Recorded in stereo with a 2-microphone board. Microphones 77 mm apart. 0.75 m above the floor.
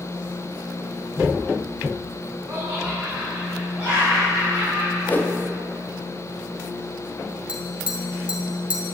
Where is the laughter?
25° right (ahead or behind), 3 m; by 5.0 s 10° right (ahead or behind), 5.5 m.